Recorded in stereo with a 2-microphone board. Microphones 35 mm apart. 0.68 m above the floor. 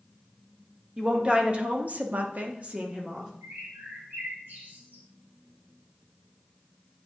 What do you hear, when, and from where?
1.0 s a woman speaking: 30° right (ahead or behind), 1.4 m; by 3.3 s 25° right (ahead or behind), 1.2 m
3.4 s a bird: 75° right (ahead or behind), 2.5 m